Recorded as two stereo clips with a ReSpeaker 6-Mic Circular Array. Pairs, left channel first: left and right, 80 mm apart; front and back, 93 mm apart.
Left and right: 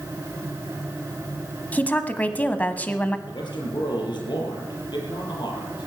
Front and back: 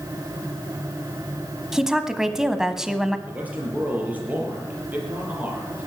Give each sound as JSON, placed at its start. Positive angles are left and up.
{"t": 1.7, "sound": "a woman speaking", "azimuth_deg": 105, "distance_m": 1.0}
{"t": 3.3, "sound": "a man speaking", "azimuth_deg": 105, "distance_m": 5.5}